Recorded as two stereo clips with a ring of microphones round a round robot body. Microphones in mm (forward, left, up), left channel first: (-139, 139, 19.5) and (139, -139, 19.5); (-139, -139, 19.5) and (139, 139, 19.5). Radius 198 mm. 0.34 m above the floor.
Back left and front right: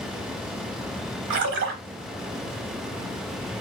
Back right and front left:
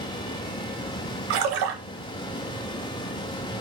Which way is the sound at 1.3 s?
15° left.